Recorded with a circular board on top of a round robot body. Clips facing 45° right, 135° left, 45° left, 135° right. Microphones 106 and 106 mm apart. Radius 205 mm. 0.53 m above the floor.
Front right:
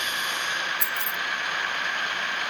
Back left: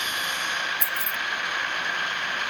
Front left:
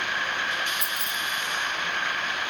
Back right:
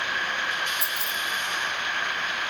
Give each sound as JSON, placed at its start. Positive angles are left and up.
{"t": 0.8, "sound": "keys jangling", "azimuth_deg": -75}